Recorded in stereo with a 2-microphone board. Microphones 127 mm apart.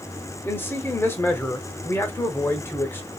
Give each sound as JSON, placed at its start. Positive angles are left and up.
{"t": 0.4, "sound": "a man speaking", "side_deg": 20, "distance_m": 0.8}